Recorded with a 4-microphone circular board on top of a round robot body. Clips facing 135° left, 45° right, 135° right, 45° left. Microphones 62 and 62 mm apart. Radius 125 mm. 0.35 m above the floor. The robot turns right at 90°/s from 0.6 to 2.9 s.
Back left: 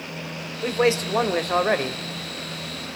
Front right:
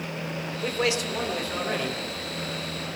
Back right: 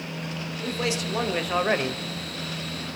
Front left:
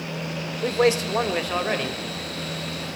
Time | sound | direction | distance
0.6 | a man speaking | 60° left | 1.8 m